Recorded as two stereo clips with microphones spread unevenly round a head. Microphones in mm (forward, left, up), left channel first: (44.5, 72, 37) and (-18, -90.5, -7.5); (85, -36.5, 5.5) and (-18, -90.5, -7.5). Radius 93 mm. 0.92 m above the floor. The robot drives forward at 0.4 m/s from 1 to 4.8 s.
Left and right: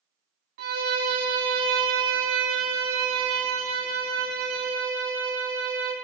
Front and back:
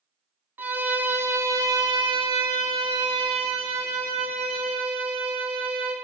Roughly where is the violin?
Right.